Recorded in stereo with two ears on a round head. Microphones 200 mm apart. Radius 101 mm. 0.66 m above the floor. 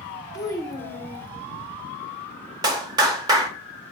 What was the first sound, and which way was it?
A child speaking, 15° left (ahead or behind).